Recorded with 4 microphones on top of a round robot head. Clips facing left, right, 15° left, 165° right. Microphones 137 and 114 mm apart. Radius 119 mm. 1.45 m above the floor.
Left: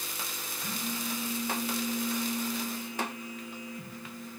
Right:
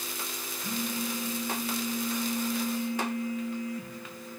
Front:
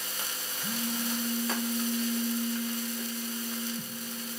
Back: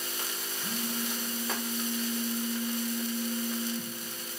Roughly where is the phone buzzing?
Ahead left.